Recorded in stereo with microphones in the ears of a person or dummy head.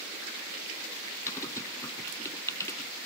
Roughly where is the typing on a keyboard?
Left.